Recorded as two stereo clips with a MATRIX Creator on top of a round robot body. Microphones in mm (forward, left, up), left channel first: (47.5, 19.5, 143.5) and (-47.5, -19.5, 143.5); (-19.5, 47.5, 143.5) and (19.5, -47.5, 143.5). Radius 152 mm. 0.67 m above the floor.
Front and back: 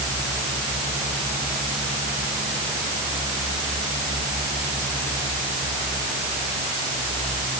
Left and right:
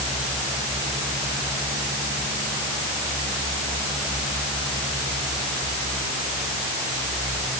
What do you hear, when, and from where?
Only background noise.